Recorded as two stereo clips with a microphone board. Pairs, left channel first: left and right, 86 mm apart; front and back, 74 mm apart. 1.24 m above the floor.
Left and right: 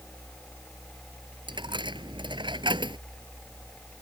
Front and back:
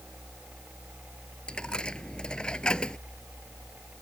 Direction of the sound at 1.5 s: 75° right.